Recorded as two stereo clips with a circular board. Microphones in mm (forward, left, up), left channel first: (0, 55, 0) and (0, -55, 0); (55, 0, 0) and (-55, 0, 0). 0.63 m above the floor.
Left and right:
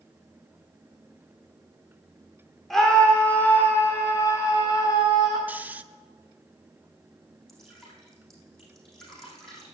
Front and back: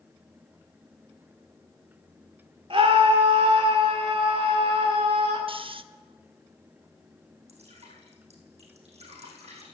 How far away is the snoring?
About 0.5 m.